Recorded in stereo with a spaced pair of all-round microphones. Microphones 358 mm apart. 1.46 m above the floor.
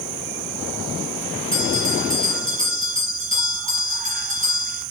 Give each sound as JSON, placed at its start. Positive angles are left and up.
{"t": 1.5, "sound": "a bell", "side_deg": 35, "distance_m": 5.5}